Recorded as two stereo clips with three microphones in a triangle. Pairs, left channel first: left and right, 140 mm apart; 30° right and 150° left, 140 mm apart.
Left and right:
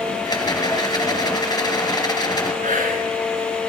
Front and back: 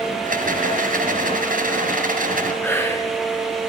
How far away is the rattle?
About 3 m.